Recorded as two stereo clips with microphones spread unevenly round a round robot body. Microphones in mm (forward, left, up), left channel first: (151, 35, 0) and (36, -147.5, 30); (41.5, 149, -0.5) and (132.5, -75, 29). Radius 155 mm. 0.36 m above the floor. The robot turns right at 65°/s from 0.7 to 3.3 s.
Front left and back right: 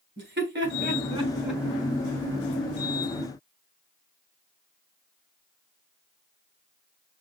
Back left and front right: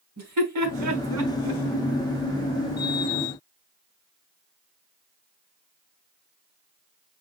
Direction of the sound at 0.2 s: 85° right.